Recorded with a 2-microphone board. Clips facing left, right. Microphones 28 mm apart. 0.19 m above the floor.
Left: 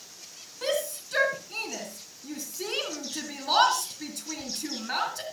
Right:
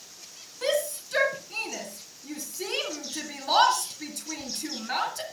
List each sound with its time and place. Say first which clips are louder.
0.6 s a shout: right 2 dB; 5° left (ahead or behind), 2 m